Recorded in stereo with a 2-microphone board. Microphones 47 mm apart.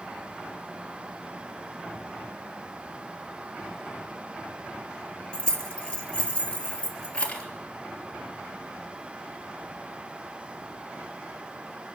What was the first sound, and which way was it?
Keys jangling, 25° left (ahead or behind).